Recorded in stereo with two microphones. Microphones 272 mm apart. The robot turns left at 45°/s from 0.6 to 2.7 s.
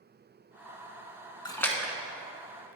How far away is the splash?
About 0.7 m.